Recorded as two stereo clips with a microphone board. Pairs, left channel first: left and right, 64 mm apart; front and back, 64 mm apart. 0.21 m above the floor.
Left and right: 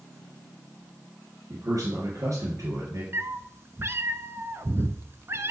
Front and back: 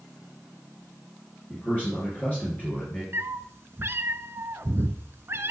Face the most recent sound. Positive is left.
turn(degrees=-130)